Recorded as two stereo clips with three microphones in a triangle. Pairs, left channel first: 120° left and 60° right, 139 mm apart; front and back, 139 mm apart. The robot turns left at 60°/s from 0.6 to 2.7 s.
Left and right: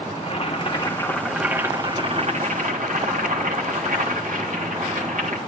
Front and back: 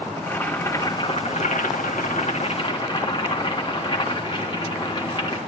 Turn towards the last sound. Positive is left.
turn(degrees=-55)